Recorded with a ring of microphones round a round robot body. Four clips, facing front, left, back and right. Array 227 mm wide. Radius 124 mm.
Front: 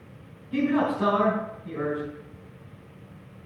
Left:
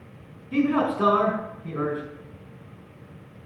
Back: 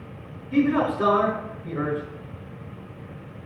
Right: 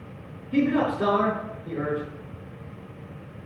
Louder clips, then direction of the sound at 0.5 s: Even, back 3 dB; 110° left.